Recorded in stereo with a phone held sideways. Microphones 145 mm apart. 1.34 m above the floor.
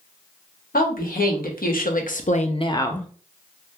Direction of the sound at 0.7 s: 80° left.